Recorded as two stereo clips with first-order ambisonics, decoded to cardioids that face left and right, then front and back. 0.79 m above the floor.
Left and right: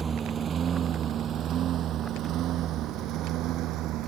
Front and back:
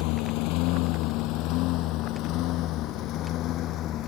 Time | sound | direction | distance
0.0 | a lawn mower | 20° right | ?